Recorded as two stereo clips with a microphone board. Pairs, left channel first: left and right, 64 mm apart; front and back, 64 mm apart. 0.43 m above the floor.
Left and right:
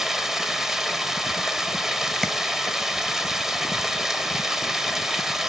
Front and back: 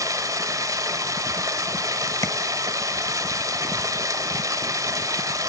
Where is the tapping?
5° left, 1.4 m.